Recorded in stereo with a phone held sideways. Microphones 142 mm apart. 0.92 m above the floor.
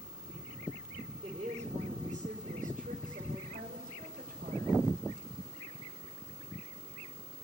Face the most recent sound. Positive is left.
turn(degrees=-80)